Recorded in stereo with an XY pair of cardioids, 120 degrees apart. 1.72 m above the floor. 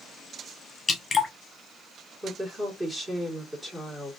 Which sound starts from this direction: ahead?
A woman speaking, at 2.2 s.